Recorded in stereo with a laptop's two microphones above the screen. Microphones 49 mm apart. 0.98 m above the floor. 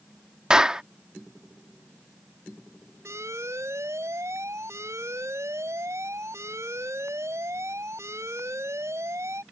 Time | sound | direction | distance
0.5 | a clap | 15° right (ahead or behind) | ?
3.0 | an alarm | 80° right | ?